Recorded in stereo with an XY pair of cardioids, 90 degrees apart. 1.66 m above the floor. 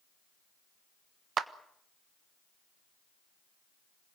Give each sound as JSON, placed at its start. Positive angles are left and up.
{"t": 1.4, "sound": "a clap", "azimuth_deg": -65, "distance_m": 1.3}